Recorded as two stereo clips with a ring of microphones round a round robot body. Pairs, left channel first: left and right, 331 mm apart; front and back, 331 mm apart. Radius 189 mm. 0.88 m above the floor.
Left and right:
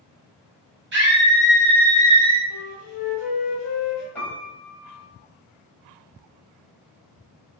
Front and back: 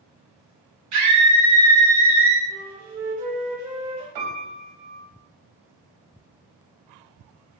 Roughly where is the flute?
Behind left.